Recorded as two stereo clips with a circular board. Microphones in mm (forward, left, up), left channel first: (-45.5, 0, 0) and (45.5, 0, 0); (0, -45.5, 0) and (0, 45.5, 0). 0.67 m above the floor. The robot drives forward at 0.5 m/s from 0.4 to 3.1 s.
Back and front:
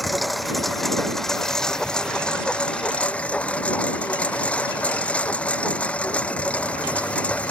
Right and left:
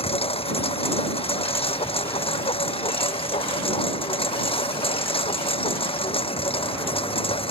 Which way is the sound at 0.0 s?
90° right.